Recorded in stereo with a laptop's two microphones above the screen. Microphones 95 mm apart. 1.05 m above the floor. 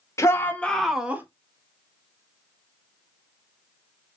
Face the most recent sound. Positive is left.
turn(degrees=-20)  # may be behind; listen again after turning